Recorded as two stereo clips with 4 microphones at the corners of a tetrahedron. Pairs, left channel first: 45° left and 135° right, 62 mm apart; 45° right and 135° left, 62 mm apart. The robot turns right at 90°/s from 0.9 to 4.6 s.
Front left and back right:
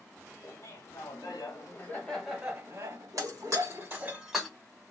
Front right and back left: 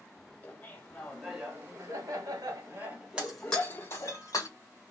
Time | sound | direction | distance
0.4 | laughter | 15° left | 1.7 m
3.2 | breaking glass | 150° right | 1.4 m